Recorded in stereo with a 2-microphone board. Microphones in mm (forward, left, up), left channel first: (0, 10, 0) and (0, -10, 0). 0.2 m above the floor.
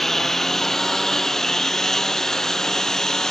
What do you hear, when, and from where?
0.0 s a lawn mower: 10° left (ahead or behind); by 3.3 s 20° left (ahead or behind)